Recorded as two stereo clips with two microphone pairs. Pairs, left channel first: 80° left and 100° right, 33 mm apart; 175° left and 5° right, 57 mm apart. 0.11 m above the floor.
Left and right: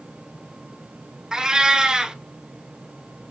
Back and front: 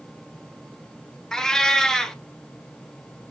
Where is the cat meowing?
125° right, 0.6 m.